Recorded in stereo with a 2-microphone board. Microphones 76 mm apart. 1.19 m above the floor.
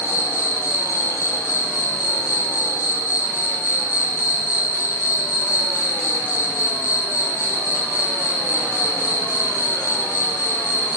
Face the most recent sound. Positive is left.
turn(degrees=35)  # may be behind; listen again after turning